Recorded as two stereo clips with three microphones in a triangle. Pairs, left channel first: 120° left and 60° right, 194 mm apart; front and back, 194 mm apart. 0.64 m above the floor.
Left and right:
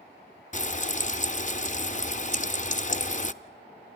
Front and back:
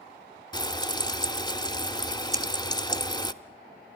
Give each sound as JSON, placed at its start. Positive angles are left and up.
{"t": 0.5, "sound": "frying", "azimuth_deg": 65, "distance_m": 0.6}
{"t": 2.3, "sound": "scissors", "azimuth_deg": -110, "distance_m": 1.5}